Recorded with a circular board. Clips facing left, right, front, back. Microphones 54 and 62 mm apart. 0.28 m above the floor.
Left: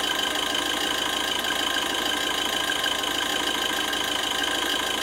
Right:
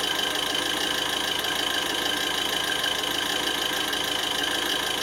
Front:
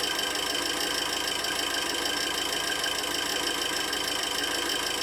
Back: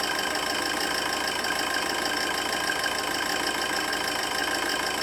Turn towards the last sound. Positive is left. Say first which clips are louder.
# left 1 dB, back 3 dB
turn(degrees=170)